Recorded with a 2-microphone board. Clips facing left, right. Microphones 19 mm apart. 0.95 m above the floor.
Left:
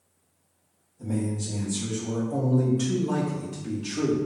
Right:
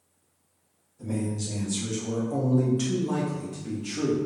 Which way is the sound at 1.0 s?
60° right (ahead or behind).